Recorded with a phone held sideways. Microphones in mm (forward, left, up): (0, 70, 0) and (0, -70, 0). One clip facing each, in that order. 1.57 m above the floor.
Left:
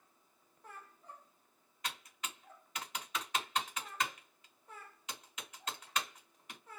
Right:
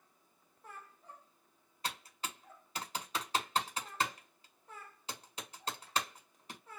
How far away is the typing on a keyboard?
About 0.9 m.